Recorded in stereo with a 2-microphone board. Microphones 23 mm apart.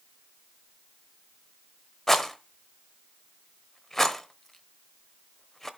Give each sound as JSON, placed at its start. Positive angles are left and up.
{"t": 2.1, "sound": "a rattle", "side_deg": 15, "distance_m": 0.9}